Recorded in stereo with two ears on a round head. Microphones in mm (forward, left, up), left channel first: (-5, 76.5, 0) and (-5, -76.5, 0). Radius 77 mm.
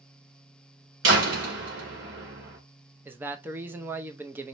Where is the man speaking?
10° right (ahead or behind), 0.6 m.